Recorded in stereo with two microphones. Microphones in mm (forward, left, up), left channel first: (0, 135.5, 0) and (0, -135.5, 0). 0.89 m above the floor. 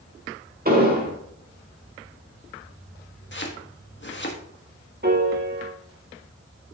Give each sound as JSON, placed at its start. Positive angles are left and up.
{"t": 0.7, "sound": "an explosion", "side_deg": -35, "distance_m": 1.7}
{"t": 3.3, "sound": "chopping", "side_deg": 40, "distance_m": 1.4}
{"t": 5.0, "sound": "a piano", "side_deg": -40, "distance_m": 1.7}